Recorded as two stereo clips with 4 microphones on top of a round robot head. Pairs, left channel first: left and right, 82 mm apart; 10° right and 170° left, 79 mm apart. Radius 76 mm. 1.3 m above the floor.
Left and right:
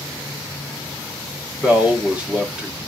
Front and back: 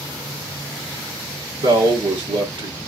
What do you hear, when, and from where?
1.6 s a man speaking: 165° right, 1.3 m